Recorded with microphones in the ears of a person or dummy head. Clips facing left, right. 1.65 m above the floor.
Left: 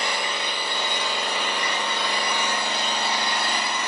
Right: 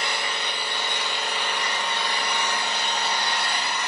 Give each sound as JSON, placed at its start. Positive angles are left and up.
{"t": 0.0, "sound": "an engine running", "side_deg": 60, "distance_m": 0.8}